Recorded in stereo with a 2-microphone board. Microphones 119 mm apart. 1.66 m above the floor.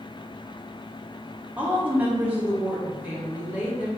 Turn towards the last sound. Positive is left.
turn(degrees=-15)  # may be behind; listen again after turning